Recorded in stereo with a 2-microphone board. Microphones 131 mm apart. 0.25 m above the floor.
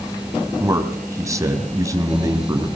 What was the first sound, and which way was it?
A man speaking, 25° right (ahead or behind).